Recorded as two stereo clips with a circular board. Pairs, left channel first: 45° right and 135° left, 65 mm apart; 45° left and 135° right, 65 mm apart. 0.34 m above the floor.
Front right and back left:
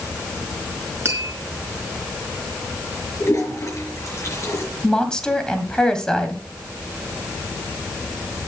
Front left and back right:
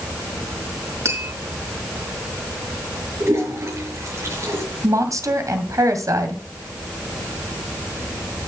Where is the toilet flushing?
90° right, 5.5 m.